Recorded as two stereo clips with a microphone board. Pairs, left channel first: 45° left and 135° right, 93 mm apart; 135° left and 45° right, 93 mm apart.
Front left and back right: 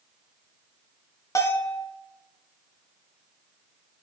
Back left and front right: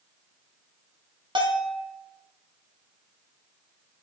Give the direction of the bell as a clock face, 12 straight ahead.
12 o'clock.